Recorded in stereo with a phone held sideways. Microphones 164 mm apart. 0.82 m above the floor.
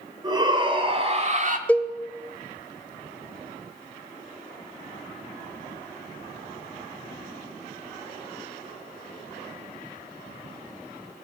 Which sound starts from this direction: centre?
A cowbell, at 1.7 s.